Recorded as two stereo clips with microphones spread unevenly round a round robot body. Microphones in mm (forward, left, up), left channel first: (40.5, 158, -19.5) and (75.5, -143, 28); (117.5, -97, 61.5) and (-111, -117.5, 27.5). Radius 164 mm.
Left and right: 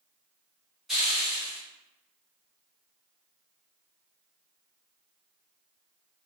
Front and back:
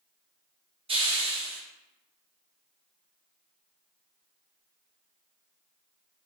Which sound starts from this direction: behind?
A hiss, at 0.9 s.